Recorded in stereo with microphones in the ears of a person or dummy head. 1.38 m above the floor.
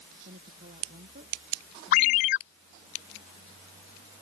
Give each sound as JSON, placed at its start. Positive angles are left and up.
{"t": 0.2, "sound": "a woman speaking", "side_deg": -55}
{"t": 1.9, "sound": "a ringtone", "side_deg": 45}